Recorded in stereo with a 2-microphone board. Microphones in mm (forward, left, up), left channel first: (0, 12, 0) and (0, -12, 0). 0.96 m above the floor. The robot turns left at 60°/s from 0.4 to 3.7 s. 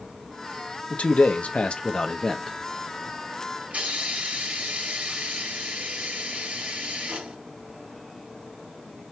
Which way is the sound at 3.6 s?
75° right (ahead or behind).